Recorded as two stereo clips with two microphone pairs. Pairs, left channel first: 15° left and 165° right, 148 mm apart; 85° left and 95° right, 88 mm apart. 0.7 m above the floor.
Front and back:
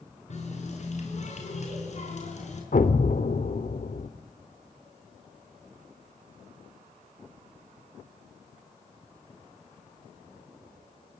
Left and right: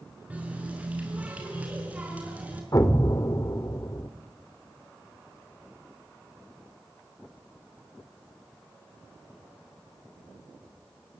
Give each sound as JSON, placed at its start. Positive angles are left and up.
{"t": 0.3, "sound": "a running tap", "azimuth_deg": -20, "distance_m": 6.0}
{"t": 2.7, "sound": "an explosion", "azimuth_deg": 35, "distance_m": 2.0}